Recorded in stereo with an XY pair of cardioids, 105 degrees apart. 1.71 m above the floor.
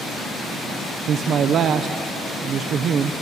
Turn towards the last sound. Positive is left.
turn(degrees=-60)